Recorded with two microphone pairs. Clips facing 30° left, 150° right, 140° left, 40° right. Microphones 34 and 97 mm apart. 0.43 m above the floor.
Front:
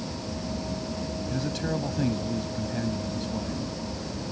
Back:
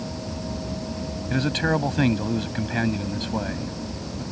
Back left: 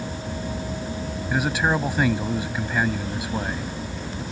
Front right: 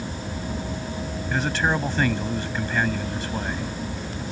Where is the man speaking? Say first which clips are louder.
Back 9 dB, back left 1 dB; 140° right.